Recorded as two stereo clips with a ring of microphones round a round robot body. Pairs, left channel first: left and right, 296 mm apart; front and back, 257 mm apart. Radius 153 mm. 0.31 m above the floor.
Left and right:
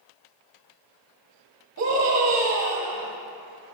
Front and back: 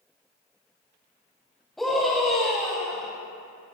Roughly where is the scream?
Right.